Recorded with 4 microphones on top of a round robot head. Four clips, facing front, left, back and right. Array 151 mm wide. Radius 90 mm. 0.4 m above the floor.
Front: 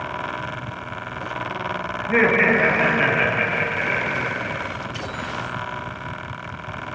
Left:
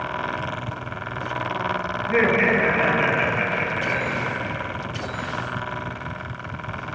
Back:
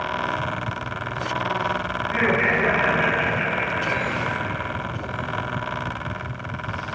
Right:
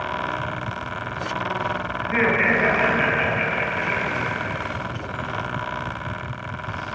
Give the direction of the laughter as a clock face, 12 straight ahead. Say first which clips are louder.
Left 2 dB, front 5 dB; 11 o'clock.